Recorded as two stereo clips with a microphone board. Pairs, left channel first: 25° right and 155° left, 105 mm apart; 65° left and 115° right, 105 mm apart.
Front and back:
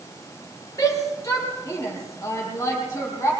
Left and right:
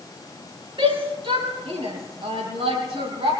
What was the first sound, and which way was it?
A shout, 80° right.